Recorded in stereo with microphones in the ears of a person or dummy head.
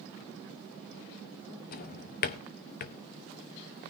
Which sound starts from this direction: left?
A drawer, at 1.7 s.